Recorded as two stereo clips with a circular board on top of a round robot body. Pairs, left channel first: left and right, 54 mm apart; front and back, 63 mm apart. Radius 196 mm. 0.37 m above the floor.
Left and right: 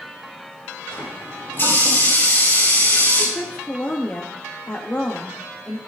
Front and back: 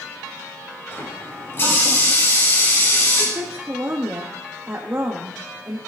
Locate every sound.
0.9 s a running tap: 45° left, 7.5 m
3.4 s a woman speaking: 135° left, 1.7 m